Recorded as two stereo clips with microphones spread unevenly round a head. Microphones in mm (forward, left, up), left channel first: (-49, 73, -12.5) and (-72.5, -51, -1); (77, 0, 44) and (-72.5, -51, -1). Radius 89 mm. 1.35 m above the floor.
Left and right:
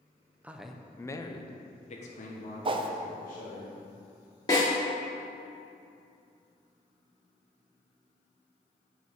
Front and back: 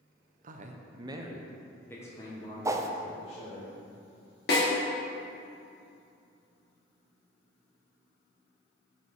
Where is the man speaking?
Straight behind, 0.8 m; by 3.6 s 75° left, 1.8 m.